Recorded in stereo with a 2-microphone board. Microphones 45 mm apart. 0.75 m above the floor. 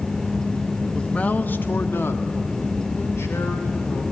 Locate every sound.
0.9 s a man speaking: 15° left (ahead or behind), 1.1 m; by 4.0 s 75° left (ahead or behind), 4 m